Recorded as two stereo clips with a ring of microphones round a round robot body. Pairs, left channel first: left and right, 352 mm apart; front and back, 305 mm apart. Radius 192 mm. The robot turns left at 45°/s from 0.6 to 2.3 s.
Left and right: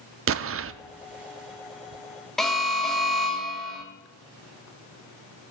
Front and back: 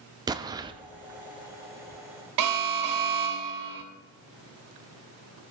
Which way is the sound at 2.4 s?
Straight behind.